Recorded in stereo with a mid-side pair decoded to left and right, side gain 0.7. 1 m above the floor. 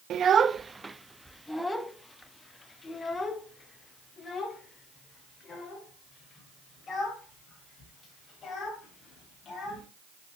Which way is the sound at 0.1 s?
40° right.